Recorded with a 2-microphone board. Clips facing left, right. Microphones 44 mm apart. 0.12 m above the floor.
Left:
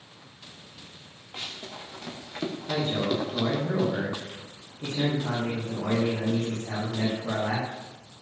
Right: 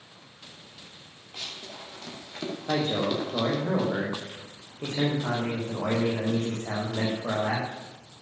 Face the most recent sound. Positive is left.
turn(degrees=-65)  # may be behind; listen again after turning